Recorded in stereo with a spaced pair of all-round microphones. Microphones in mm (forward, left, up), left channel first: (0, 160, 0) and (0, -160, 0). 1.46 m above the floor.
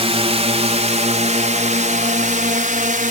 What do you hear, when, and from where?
0.0 s a drone: 20° right (ahead or behind); by 3.1 s 25° right (ahead or behind)